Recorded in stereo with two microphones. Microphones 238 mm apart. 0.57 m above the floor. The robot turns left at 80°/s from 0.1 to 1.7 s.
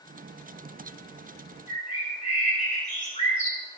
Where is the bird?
30° left (ahead or behind), 8 m; by 3.6 s 25° left (ahead or behind), 8 m.